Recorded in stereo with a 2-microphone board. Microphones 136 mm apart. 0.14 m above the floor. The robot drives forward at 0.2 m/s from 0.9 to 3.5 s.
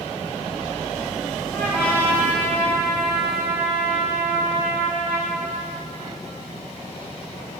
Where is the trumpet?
15° left (ahead or behind), 5 m.